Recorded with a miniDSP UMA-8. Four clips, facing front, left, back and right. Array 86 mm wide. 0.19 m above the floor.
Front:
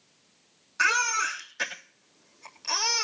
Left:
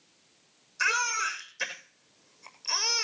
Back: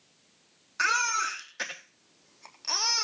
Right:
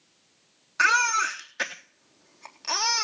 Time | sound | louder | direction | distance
0.8 | a baby crying | right 7 dB, front 2 dB | 90° right | 3.5 m